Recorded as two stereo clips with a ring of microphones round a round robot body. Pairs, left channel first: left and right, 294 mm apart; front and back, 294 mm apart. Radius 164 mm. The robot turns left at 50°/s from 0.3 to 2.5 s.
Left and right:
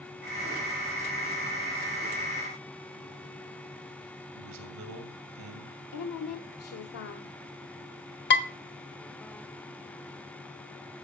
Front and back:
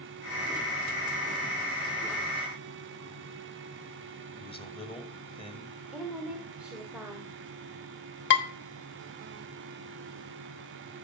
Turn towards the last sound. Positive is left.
turn(degrees=45)